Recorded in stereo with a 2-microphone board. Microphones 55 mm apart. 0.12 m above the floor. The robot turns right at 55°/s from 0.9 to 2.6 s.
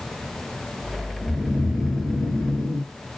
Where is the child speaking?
No child speaking in this recording.